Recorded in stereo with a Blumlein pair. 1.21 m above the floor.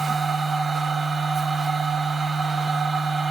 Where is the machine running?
15° right, 1.0 m.